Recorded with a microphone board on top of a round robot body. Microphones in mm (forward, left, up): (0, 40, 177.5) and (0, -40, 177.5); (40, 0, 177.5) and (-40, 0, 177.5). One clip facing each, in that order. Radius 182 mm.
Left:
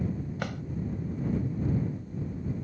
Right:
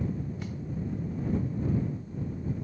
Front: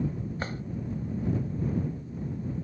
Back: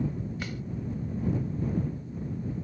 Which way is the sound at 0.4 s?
60° left.